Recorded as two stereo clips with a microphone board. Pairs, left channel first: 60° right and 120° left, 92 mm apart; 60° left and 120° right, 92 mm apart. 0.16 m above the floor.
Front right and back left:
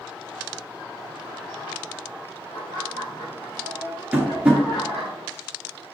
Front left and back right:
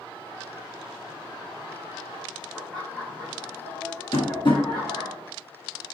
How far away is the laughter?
About 3.5 m.